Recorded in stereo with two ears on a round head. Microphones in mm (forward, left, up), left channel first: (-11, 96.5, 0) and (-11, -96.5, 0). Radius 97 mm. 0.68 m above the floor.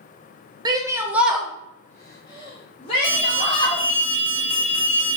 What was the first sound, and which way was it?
A shout, 20° right (ahead or behind).